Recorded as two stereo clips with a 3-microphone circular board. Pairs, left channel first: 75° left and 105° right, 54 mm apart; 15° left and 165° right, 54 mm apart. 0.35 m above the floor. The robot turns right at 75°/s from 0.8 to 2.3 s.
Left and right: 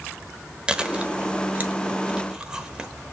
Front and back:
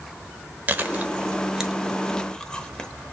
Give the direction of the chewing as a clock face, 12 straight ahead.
5 o'clock.